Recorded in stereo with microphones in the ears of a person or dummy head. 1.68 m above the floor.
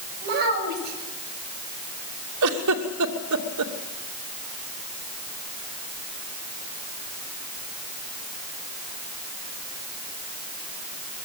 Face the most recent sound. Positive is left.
turn(degrees=-70)  # may be behind; listen again after turning